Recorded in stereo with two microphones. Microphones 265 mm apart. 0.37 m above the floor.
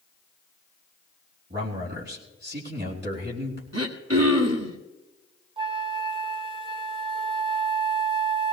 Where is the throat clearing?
70° right (ahead or behind), 1.6 m.